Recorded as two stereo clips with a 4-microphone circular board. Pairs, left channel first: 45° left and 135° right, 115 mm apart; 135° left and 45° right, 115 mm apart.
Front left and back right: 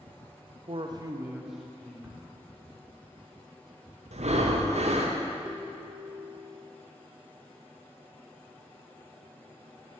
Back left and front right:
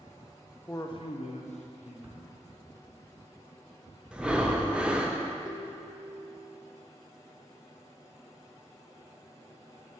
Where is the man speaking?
165° right, 0.7 m; by 1.9 s 125° left, 1.4 m.